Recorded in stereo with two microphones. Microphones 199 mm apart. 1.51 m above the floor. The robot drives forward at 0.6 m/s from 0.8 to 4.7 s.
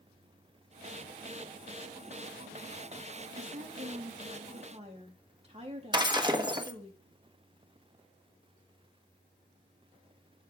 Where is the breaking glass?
20° right (ahead or behind), 1.2 m.